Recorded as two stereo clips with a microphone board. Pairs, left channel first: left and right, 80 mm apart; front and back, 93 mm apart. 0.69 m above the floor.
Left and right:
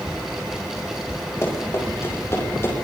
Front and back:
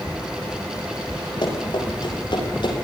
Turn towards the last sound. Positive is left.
turn(degrees=30)